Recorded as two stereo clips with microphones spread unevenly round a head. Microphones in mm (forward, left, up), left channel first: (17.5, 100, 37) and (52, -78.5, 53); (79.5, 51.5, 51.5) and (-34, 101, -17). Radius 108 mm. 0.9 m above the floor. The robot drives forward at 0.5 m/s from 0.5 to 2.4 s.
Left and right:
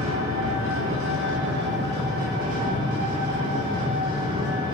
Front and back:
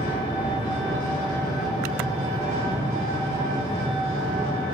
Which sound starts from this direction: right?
An engine running, at 0.0 s.